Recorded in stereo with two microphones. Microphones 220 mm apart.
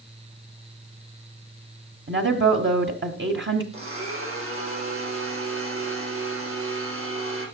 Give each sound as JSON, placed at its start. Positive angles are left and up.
{"t": 2.1, "sound": "a woman speaking", "side_deg": -55, "distance_m": 1.7}
{"t": 3.7, "sound": "a blender", "side_deg": -75, "distance_m": 10.0}